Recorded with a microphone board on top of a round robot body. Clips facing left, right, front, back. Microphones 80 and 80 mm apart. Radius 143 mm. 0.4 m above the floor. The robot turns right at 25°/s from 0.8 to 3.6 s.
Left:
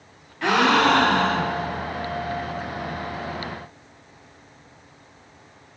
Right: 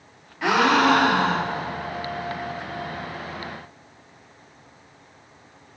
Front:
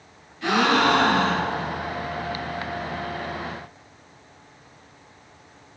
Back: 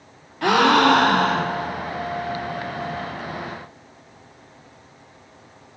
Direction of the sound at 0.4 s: 175° right.